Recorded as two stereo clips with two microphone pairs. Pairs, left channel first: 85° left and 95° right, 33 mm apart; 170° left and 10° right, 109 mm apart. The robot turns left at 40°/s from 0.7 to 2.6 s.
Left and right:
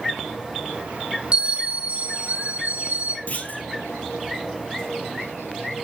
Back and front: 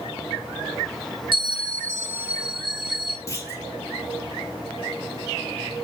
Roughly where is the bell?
Ahead right.